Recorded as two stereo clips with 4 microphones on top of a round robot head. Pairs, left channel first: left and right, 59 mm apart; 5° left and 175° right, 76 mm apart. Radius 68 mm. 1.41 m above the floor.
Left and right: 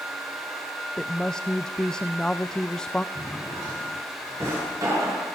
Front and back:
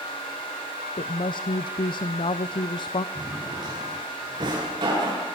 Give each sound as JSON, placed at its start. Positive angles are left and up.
{"t": 1.0, "sound": "a woman speaking", "azimuth_deg": 10, "distance_m": 0.7}
{"t": 3.1, "sound": "a drawer", "azimuth_deg": -135, "distance_m": 9.0}